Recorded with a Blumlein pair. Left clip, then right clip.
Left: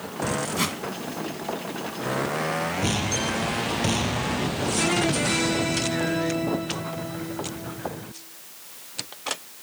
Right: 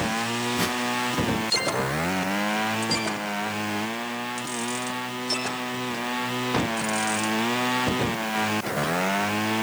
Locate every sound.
0.6 s a whoosh: 20° left, 1.6 m